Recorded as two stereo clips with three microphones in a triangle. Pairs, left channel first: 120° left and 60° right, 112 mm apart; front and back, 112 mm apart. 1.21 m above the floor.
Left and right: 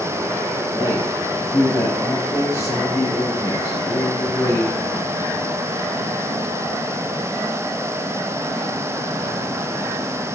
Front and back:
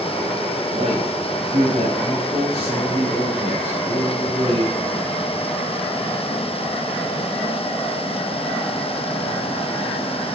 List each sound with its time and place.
0.7 s a man speaking: 175° right, 3.5 m